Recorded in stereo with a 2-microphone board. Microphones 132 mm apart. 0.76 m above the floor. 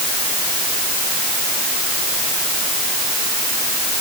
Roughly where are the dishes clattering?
I don't hear dishes clattering.